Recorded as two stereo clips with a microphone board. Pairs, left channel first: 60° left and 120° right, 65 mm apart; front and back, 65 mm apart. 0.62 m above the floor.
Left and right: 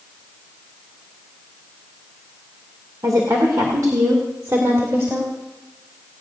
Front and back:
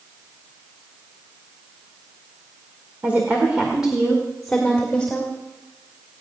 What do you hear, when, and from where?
3.0 s a woman speaking: 120° right, 2.0 m; by 5.3 s 70° right, 2.5 m